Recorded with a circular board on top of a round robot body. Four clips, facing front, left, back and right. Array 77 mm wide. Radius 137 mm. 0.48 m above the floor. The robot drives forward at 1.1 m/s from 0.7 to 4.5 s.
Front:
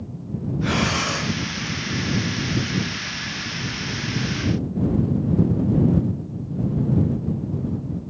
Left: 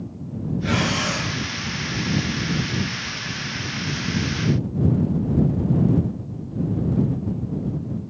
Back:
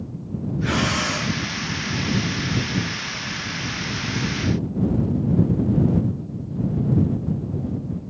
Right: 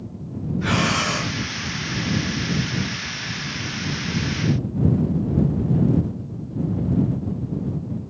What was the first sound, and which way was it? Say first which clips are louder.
Breathing: right 2 dB, even; 75° right.